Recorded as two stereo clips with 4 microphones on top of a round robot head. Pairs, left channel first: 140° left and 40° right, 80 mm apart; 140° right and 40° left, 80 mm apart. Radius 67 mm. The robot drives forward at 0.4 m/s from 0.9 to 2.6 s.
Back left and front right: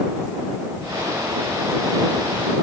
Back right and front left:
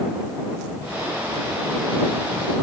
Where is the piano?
I don't hear a piano.